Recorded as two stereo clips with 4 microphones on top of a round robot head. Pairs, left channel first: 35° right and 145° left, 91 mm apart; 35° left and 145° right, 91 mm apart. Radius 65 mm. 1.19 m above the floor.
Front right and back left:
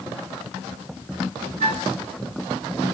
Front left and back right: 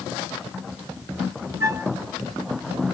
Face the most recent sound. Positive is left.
turn(degrees=150)